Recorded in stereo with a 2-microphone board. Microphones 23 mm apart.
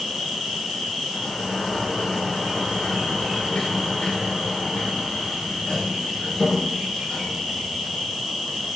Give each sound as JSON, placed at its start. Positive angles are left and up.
{"t": 0.0, "sound": "an insect", "side_deg": -35, "distance_m": 4.0}
{"t": 1.1, "sound": "a sliding door", "side_deg": 30, "distance_m": 5.0}